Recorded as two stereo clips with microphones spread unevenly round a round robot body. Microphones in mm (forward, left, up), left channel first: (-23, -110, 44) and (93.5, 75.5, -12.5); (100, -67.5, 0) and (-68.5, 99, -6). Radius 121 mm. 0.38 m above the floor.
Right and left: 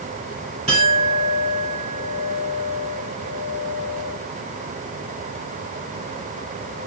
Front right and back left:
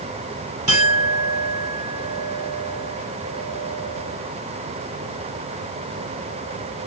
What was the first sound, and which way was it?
A clink, 120° left.